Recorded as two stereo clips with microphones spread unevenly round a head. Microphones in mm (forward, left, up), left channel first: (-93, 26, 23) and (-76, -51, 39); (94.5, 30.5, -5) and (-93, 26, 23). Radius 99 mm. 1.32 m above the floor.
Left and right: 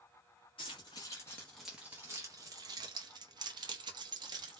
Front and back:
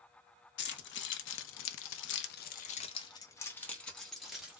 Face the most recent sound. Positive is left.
turn(degrees=-95)